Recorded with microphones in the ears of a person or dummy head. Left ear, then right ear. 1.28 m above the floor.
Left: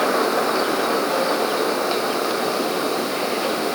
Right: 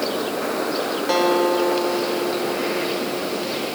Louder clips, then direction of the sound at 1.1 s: Right 2 dB; 40° right (ahead or behind).